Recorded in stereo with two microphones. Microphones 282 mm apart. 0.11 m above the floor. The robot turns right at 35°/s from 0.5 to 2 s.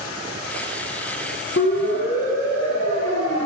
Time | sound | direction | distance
1.6 | a siren | 45° left (ahead or behind) | 5 m